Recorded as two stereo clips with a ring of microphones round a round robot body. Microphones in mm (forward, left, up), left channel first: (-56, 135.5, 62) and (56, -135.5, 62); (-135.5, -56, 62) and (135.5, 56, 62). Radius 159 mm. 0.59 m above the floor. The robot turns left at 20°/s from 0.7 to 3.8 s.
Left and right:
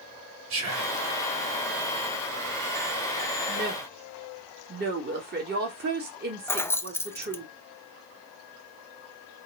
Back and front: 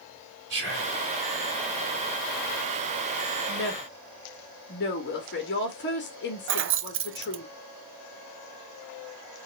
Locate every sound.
0.5 s whispering: 30° right, 3 m; by 1.0 s 35° right, 3 m
3.5 s a woman speaking: 110° right, 1.6 m; by 7.5 s 115° right, 1.6 m
6.5 s keys jangling: 35° left, 0.5 m